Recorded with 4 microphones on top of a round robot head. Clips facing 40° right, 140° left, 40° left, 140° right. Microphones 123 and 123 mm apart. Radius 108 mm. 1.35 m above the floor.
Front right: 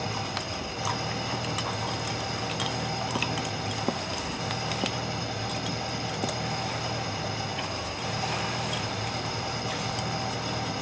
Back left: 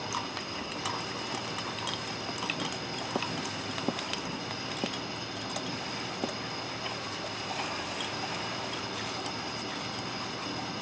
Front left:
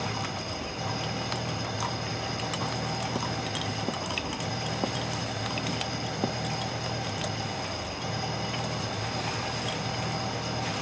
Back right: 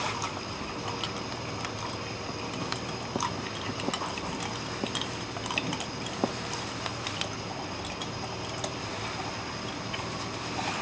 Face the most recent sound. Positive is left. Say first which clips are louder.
# front right 4 dB, front left 1 dB
turn(degrees=10)